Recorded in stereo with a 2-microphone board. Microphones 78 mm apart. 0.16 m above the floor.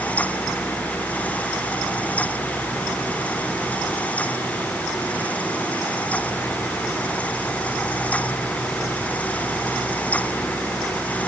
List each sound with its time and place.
Only background noise.